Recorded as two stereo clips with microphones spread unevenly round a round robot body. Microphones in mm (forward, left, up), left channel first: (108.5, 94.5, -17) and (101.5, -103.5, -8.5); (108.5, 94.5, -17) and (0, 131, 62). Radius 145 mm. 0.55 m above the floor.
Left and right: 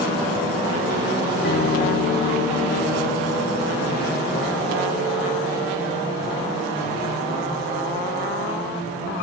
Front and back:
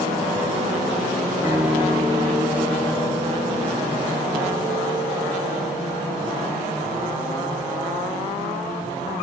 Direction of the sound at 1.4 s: 50° left.